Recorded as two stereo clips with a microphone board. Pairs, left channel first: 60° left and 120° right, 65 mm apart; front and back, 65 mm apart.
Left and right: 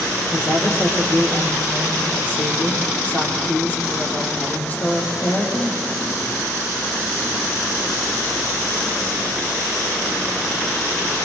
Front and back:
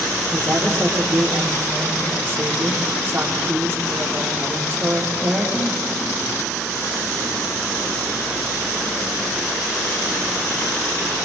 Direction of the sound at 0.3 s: 125° left.